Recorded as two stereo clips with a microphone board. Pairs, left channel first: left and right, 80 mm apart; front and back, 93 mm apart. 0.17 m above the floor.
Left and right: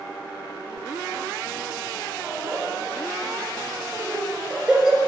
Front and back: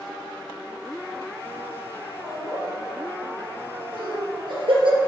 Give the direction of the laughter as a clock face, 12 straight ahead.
4 o'clock.